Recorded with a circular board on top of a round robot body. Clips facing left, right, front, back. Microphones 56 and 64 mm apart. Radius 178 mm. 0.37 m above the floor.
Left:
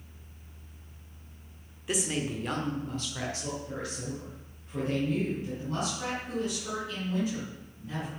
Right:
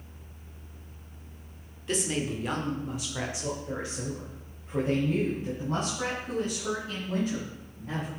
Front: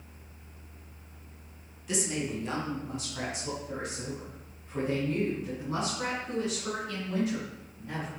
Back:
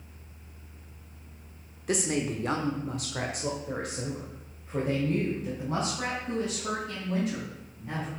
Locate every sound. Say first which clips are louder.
1.9 s a woman speaking: right 1 dB, back 4 dB; 170° left, 1.5 m; by 8.1 s 135° right, 4.5 m